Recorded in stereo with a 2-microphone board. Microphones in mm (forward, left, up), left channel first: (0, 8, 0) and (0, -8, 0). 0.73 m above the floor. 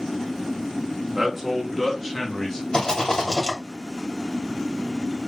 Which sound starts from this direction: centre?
A man speaking, at 1.1 s.